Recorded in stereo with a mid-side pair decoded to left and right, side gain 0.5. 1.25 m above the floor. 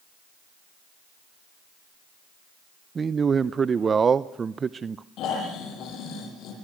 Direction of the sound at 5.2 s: 70° left.